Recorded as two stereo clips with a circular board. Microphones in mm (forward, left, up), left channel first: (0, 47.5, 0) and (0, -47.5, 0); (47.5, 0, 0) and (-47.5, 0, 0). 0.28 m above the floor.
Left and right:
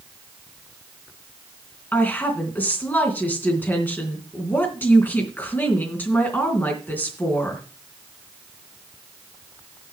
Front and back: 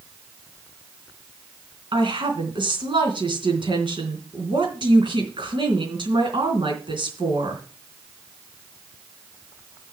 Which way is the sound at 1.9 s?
160° left.